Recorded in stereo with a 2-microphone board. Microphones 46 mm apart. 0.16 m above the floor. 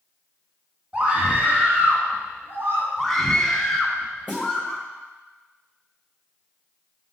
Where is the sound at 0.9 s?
25° right (ahead or behind), 1.5 m; by 2.9 s 50° right (ahead or behind), 2 m.